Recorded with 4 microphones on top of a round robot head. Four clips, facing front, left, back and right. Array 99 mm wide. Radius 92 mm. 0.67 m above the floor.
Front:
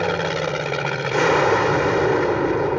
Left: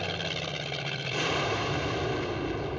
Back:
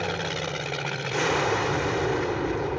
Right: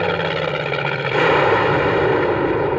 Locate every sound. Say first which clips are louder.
0.0 s an aircraft: right 15 dB, front 8 dB; 60° right